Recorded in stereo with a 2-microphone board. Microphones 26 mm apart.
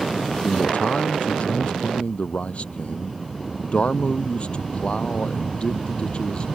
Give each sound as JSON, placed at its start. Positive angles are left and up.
{"t": 0.4, "sound": "a man speaking", "side_deg": 70}